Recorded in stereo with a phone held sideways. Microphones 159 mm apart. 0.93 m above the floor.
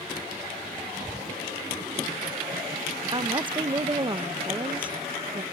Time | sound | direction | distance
1.0 | whispering | 15° left (ahead or behind) | 2.5 m
3.1 | a woman speaking | 30° right (ahead or behind) | 0.6 m